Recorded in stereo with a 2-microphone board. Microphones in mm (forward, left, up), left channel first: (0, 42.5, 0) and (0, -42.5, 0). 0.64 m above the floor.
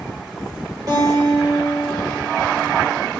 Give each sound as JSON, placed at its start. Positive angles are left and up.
{"t": 0.9, "sound": "a guitar", "side_deg": -55, "distance_m": 2.5}